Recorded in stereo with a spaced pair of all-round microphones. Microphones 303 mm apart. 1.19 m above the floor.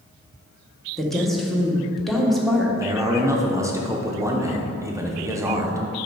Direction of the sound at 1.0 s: Centre (ahead or behind).